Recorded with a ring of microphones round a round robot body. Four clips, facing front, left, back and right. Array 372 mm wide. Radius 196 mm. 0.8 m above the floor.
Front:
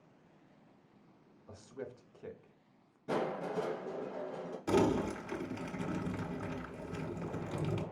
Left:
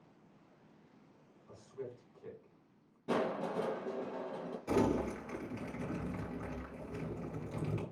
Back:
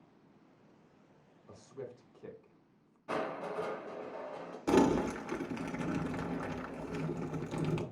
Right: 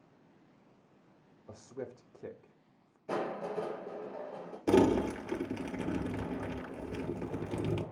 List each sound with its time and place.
1.5 s a man speaking: 80° right, 0.9 m
3.1 s crushing: 65° left, 3 m
4.7 s crumpling: 115° right, 0.8 m